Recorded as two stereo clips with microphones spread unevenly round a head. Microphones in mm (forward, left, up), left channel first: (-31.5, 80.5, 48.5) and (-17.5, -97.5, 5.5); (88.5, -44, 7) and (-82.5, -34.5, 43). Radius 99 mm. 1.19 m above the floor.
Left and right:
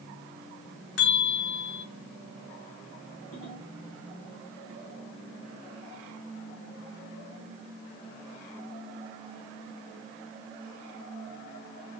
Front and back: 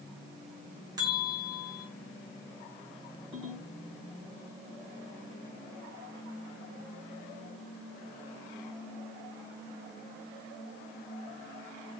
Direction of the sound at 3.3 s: 90° left.